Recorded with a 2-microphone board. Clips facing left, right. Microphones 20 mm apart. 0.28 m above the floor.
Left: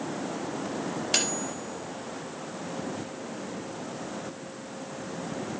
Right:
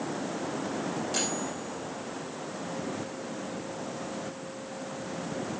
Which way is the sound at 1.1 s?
65° left (ahead or behind).